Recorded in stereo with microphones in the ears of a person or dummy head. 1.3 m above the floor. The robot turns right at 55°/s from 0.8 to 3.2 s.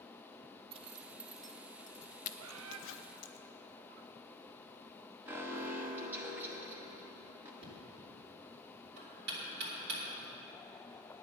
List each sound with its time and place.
0.7 s a zipper: 30° right (ahead or behind), 0.5 m; by 3.4 s 65° left (ahead or behind), 0.5 m
2.4 s a bird: 85° right, 0.5 m; by 2.8 s 70° right (ahead or behind), 0.5 m
5.3 s an alarm: 10° right (ahead or behind), 1.2 m
7.6 s knocking: 60° right (ahead or behind), 3 m